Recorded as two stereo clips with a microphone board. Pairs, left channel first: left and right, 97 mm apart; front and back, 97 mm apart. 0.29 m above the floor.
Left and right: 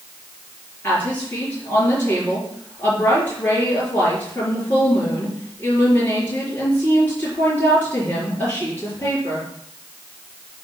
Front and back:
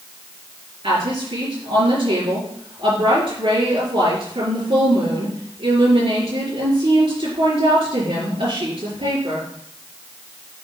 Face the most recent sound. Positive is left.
turn(degrees=160)